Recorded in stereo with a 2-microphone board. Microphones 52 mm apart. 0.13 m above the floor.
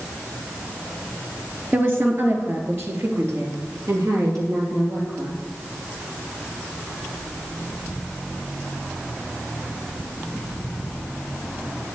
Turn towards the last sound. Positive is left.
turn(degrees=-70)  # may be behind; listen again after turning